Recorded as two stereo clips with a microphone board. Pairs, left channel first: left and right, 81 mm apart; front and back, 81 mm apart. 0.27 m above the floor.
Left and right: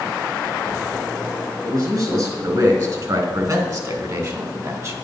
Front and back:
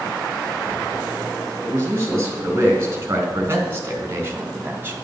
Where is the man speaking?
120° right, 4.5 m; by 4.9 s 125° right, 2 m.